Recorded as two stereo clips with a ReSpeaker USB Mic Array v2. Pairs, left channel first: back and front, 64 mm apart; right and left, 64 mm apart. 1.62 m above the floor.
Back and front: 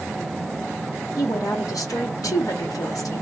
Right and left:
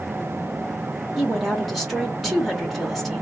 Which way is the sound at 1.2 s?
Straight behind.